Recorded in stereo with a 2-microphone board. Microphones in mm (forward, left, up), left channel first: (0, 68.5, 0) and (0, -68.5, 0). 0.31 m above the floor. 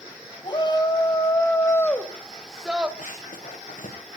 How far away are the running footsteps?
About 4 m.